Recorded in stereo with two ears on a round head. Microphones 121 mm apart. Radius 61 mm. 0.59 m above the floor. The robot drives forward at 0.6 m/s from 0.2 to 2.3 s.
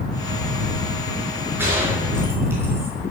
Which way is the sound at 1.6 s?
15° right (ahead or behind).